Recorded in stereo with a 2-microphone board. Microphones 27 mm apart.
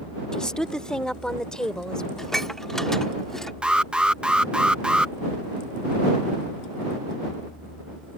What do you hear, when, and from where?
0.3 s a woman speaking: 25° left (ahead or behind)
2.2 s dishes clattering: 15° left (ahead or behind)
3.6 s an alarm: 40° right (ahead or behind)